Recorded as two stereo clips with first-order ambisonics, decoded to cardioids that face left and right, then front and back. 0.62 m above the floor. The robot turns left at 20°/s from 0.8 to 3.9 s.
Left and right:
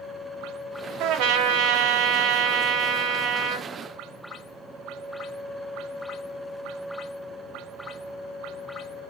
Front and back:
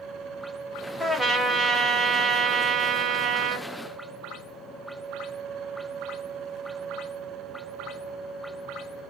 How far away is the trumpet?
About 0.9 m.